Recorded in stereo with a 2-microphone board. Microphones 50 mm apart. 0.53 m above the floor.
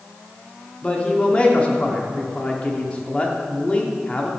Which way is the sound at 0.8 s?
25° left (ahead or behind).